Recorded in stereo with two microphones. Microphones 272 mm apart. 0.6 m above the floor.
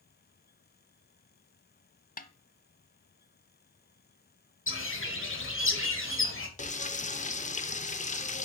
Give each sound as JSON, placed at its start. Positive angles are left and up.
{"t": 2.2, "sound": "a snare drum", "side_deg": 30, "distance_m": 0.6}
{"t": 4.7, "sound": "a bird", "side_deg": 50, "distance_m": 1.3}
{"t": 6.6, "sound": "frying", "side_deg": 25, "distance_m": 0.6}